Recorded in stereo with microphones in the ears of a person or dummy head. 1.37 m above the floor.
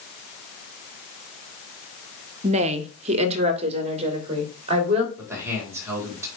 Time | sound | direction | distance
2.4 | a woman speaking | 35° right (ahead or behind) | 0.9 m
5.2 | a man speaking | 15° right (ahead or behind) | 5.5 m